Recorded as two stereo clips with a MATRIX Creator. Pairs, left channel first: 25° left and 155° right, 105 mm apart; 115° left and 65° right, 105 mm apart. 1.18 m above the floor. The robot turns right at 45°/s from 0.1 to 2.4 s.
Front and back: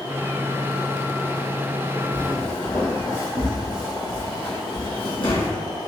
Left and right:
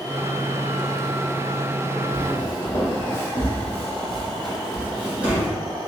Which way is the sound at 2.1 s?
80° left.